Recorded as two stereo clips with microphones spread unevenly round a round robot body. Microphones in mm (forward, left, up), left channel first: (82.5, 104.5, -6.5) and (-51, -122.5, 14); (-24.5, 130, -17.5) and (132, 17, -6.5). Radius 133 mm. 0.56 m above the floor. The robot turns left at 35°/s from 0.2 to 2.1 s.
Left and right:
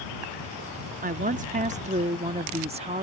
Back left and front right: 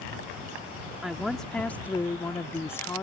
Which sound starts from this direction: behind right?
A woman speaking, at 1.0 s.